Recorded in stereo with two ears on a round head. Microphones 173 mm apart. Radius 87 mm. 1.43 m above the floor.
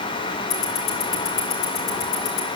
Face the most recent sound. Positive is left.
turn(degrees=75)  # may be behind; listen again after turning